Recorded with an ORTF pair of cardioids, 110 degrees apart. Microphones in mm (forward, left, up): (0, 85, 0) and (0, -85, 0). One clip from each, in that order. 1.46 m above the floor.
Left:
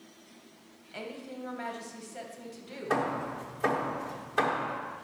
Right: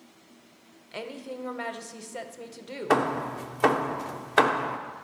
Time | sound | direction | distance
0.9 | a woman speaking | 30° right | 0.8 m
2.9 | hammering | 60° right | 0.7 m